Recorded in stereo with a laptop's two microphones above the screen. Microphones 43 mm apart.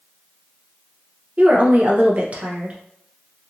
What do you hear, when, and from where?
1.4 s a woman speaking: 35° right (ahead or behind), 0.6 m